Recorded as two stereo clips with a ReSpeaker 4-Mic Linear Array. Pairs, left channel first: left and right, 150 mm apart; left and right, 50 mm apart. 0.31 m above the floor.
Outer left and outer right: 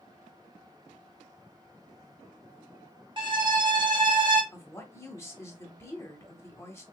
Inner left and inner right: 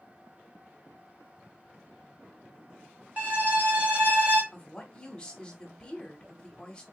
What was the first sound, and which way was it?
A violin, 35° right (ahead or behind).